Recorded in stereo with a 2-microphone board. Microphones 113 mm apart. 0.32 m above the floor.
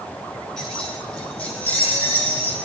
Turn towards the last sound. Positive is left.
turn(degrees=20)  # may be behind; listen again after turning